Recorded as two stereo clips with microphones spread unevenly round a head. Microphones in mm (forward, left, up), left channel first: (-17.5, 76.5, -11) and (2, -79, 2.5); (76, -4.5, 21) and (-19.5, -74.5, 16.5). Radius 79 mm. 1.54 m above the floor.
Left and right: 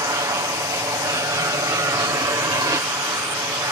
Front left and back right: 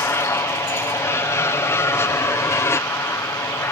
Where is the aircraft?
20° right.